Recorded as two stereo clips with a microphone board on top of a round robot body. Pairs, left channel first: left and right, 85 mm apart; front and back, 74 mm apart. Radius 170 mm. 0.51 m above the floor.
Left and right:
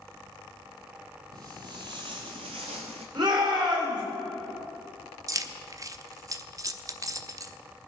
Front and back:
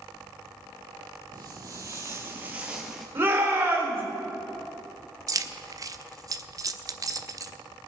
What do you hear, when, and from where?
1.3 s footsteps: 140° right, 1.2 m; by 3.0 s 90° right, 0.7 m
3.1 s a shout: 120° right, 3.5 m
5.3 s keys jangling: 140° right, 0.9 m